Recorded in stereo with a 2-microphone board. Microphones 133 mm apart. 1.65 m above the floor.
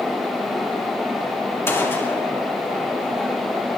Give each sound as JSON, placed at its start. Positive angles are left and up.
{"t": 1.7, "sound": "a gunshot", "side_deg": 20, "distance_m": 2.5}